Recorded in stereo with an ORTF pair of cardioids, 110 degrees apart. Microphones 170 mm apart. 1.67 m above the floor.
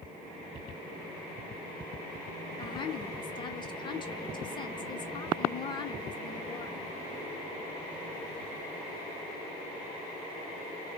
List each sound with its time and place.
2.6 s a woman speaking: 30° left, 0.7 m